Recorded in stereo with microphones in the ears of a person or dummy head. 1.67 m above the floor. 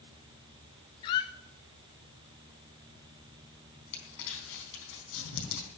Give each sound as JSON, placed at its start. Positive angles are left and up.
{"t": 1.0, "sound": "a squeak", "side_deg": 20, "distance_m": 0.7}
{"t": 3.9, "sound": "crumpling", "side_deg": 70, "distance_m": 4.0}